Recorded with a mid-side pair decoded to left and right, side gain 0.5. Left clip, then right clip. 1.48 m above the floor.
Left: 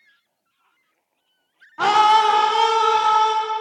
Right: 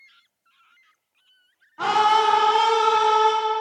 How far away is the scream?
About 1.2 m.